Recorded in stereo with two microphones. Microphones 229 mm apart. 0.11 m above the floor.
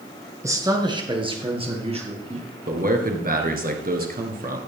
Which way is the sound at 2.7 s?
40° right (ahead or behind).